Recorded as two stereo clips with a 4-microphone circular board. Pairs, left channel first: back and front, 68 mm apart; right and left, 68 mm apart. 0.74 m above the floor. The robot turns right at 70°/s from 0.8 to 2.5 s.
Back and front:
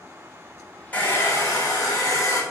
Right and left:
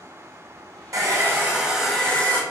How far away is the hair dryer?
About 1.6 m.